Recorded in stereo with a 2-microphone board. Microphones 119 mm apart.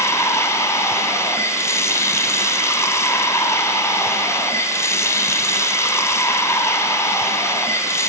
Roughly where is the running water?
Left.